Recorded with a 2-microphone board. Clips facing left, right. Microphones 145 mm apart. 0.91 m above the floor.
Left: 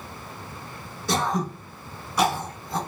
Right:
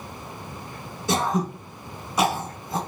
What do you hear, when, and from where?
1.1 s throat clearing: 20° right (ahead or behind), 1.1 m